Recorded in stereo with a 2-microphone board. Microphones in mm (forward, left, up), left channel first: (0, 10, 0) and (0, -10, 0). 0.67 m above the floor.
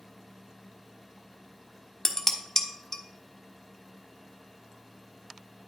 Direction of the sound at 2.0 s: 30° left (ahead or behind).